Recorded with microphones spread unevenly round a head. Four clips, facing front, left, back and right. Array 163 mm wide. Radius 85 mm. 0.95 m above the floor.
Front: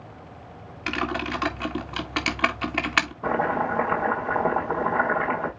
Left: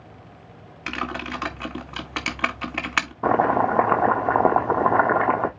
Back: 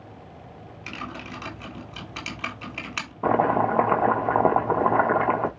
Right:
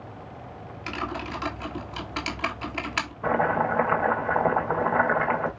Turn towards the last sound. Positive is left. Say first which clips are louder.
# left 4 dB, back 6 dB
turn(degrees=125)